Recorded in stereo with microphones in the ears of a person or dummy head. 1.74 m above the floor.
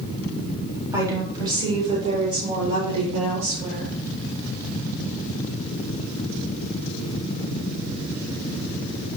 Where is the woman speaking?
20° right (ahead or behind), 4 m; by 3.9 s 50° right (ahead or behind), 6.5 m.